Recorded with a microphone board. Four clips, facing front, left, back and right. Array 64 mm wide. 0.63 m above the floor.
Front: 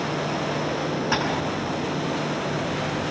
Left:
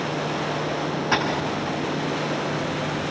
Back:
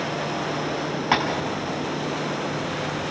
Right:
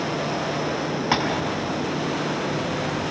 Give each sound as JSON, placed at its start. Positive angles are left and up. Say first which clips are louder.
{"t": 1.1, "sound": "tapping", "louder": "even, back 5 dB", "azimuth_deg": -155, "distance_m": 4.0}